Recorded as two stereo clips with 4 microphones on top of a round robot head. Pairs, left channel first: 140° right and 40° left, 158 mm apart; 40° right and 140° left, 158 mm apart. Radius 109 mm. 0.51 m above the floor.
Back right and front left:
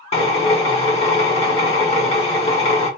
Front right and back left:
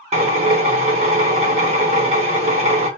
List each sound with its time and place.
0.1 s a drill: straight behind, 1.8 m